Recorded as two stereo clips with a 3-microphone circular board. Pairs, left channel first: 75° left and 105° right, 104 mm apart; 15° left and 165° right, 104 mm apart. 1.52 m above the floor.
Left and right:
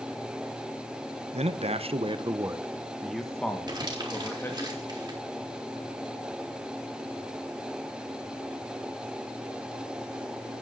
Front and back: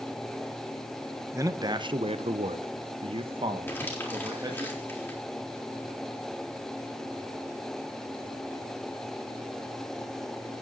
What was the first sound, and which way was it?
A man speaking, 105° right.